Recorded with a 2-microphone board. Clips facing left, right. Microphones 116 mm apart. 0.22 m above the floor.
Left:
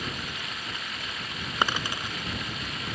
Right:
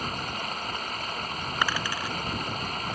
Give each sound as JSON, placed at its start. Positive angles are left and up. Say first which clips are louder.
{"t": 0.0, "sound": "running water", "louder": "right 3 dB", "side_deg": -40}
{"t": 1.6, "sound": "a dropped coin", "louder": "left 2 dB", "side_deg": 25}